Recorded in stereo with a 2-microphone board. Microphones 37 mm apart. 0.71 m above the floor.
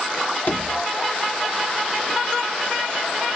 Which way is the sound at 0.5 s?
55° left (ahead or behind).